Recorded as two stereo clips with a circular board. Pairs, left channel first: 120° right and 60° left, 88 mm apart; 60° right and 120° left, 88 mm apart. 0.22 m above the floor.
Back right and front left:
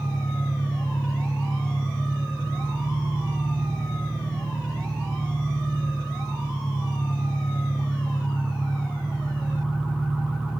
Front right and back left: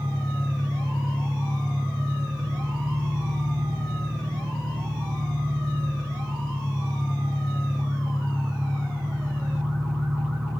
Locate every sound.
0.0 s an engine running: 170° left, 4.5 m